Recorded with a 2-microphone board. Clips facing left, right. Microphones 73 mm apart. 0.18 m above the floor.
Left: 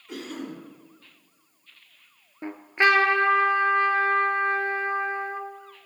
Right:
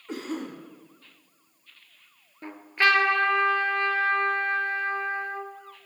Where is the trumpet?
25° left (ahead or behind), 0.7 m.